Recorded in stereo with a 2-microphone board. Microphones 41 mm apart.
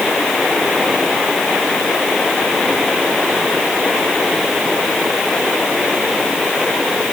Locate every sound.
Only background noise.